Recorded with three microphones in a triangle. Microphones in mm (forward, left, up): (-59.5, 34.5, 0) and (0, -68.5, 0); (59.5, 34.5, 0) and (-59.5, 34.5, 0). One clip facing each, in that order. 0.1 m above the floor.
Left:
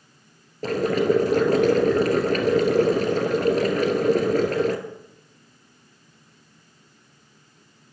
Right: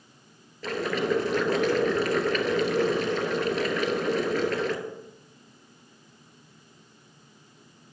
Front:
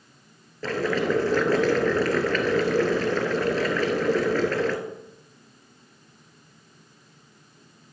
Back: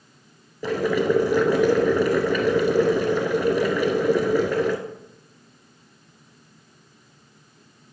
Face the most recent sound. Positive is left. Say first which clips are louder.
# left 6 dB, back 3 dB
turn(degrees=110)